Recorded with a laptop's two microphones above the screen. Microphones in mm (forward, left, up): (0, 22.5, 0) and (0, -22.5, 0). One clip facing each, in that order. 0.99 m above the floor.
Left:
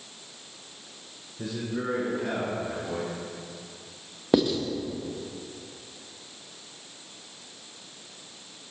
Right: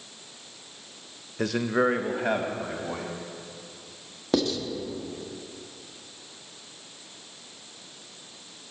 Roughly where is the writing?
Centre.